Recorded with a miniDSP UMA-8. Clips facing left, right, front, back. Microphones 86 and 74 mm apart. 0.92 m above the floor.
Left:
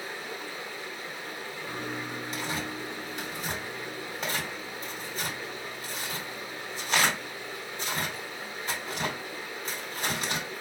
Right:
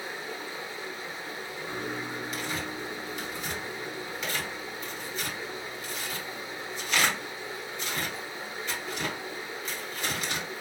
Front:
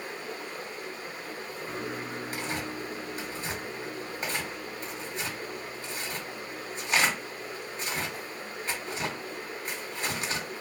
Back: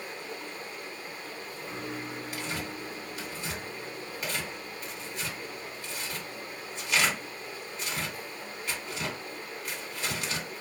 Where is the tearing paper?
45° left, 1.5 m.